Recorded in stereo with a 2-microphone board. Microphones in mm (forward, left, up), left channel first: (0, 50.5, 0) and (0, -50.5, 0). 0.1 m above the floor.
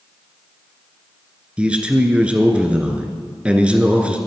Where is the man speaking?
10° right (ahead or behind), 1.1 m.